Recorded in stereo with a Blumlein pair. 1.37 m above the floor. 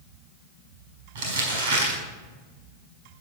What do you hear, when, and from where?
1.1 s crumpling: 55° right, 4.5 m